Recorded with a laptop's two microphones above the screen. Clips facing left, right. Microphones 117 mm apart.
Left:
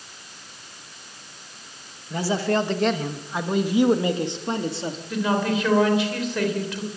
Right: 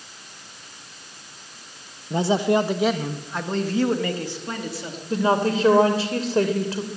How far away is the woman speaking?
About 3 m.